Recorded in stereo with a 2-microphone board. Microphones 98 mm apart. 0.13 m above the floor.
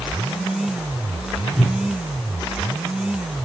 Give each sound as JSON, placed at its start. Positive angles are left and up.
{"t": 1.5, "sound": "a whoosh", "side_deg": 5, "distance_m": 1.3}